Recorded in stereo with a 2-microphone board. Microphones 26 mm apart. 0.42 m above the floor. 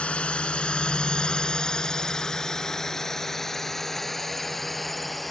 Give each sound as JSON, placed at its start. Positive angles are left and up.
{"t": 0.0, "sound": "a drone", "side_deg": 50}